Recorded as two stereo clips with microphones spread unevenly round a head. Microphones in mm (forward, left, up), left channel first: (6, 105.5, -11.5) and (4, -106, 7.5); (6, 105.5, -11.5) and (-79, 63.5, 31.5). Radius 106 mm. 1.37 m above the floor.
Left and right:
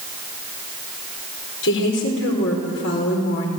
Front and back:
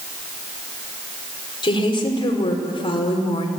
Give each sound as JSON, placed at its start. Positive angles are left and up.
{"t": 1.6, "sound": "a woman speaking", "azimuth_deg": 60, "distance_m": 5.0}